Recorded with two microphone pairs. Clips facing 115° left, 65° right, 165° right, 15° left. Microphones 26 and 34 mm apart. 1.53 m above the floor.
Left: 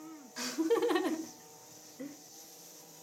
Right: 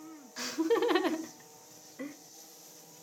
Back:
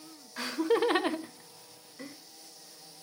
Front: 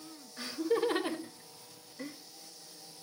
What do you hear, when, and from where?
0.4 s laughter: 150° right, 1.3 m; by 2.2 s 85° right, 1.6 m